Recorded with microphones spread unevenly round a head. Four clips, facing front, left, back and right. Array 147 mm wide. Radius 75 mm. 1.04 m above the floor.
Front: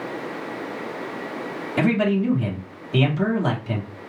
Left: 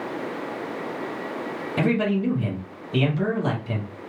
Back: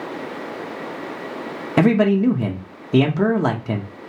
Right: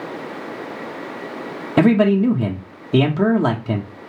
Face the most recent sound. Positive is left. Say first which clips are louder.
# right 9 dB, back 5 dB
turn(degrees=-135)